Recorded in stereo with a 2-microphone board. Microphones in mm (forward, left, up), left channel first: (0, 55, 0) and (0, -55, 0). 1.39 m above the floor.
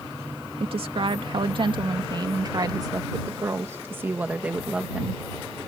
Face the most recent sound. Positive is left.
turn(degrees=-5)  # may be behind; listen again after turning